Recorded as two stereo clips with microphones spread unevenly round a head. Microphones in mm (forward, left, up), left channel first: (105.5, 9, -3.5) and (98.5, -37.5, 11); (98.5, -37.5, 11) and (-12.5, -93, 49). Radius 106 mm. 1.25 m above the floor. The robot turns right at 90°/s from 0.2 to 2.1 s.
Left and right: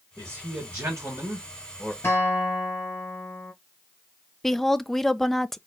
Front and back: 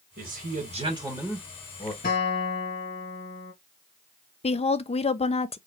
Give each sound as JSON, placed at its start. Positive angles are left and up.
{"t": 0.2, "sound": "a man speaking", "azimuth_deg": -165, "distance_m": 2.0}
{"t": 2.0, "sound": "a guitar", "azimuth_deg": 45, "distance_m": 2.0}
{"t": 4.4, "sound": "a woman speaking", "azimuth_deg": 5, "distance_m": 0.7}